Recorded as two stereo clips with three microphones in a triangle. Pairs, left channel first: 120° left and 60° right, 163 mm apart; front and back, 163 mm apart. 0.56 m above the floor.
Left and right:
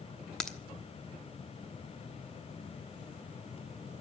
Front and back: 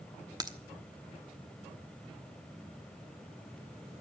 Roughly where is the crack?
Behind.